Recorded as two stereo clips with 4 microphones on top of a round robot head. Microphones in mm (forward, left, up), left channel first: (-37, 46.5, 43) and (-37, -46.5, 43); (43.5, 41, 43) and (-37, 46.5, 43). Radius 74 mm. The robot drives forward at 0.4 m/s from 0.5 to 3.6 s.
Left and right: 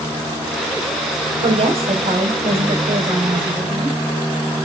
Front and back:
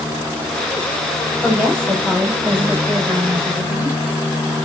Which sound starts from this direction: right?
A woman speaking, at 1.4 s.